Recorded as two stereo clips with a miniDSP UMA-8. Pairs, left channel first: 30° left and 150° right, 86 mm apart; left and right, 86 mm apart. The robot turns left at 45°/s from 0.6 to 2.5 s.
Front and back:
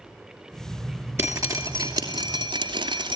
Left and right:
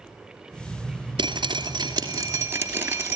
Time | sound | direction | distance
1.2 | dripping | 90° right | 2.5 m